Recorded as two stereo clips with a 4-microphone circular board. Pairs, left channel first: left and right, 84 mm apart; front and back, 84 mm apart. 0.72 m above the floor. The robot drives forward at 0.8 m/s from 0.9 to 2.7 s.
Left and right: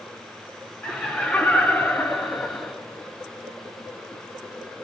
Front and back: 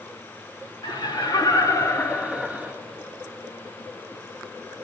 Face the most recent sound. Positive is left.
turn(degrees=120)